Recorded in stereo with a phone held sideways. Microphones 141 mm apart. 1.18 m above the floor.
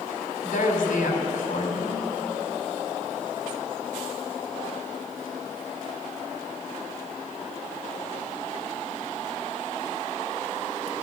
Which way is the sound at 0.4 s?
70° left (ahead or behind).